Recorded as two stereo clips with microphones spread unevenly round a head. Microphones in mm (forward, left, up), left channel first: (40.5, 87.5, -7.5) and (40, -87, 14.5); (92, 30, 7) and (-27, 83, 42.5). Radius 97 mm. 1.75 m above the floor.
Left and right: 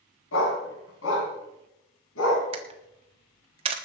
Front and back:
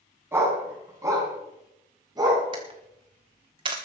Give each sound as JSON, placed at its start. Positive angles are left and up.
{"t": 0.3, "sound": "a dog barking", "azimuth_deg": 90, "distance_m": 5.0}
{"t": 2.5, "sound": "a camera shutter", "azimuth_deg": -145, "distance_m": 1.2}